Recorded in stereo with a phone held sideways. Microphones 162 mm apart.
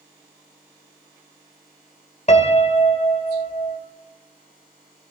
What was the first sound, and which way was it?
A piano, 45° left (ahead or behind).